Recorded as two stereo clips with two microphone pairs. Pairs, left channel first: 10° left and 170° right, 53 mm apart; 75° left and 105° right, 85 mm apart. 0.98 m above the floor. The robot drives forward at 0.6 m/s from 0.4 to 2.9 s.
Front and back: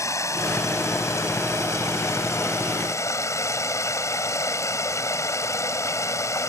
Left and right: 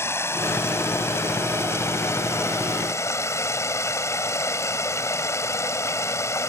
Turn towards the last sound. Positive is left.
turn(degrees=20)